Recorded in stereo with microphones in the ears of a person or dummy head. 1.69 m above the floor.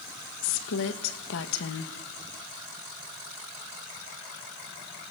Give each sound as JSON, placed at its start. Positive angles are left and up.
{"t": 0.4, "sound": "a woman speaking", "side_deg": 70, "distance_m": 2.0}